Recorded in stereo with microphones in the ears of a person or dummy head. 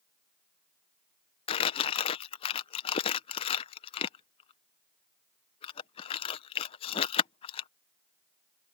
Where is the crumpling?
25° left (ahead or behind).